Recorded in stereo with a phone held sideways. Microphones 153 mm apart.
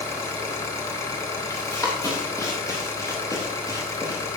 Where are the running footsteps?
20° left (ahead or behind), 5 m.